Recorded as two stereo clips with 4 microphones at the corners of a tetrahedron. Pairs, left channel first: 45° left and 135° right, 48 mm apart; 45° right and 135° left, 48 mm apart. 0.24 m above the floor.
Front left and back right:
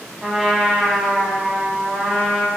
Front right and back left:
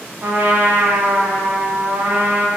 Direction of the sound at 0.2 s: 140° left.